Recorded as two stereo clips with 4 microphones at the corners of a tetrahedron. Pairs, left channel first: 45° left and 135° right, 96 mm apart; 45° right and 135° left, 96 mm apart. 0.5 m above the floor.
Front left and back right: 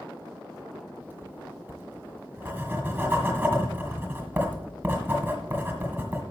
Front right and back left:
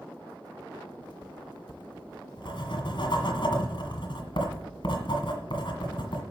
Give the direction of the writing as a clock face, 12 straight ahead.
2 o'clock.